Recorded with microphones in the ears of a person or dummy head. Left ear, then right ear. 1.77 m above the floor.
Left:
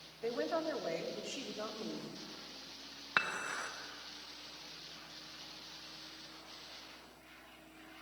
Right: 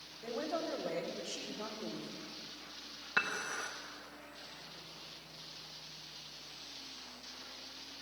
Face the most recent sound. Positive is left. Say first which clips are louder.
# even
turn(degrees=25)  # may be behind; listen again after turning